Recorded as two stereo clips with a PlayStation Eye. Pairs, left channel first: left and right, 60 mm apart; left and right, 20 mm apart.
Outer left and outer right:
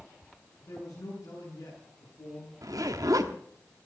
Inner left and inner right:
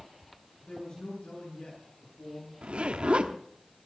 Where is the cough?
I don't hear a cough.